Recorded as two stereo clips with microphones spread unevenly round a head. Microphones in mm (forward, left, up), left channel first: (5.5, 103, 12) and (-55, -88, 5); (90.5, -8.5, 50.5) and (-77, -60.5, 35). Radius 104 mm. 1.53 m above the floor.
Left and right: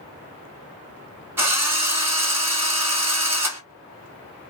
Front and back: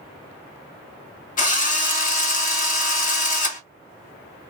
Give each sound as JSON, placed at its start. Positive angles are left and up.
{"t": 1.4, "sound": "a drill", "azimuth_deg": -25, "distance_m": 1.3}